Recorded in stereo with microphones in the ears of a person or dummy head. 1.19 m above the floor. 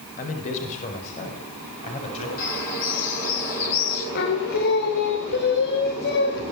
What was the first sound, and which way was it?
A man speaking, 45° left (ahead or behind).